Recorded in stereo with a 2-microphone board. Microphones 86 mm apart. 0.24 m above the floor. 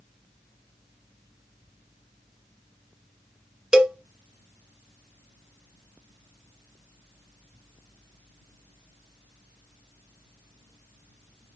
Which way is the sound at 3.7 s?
10° right (ahead or behind).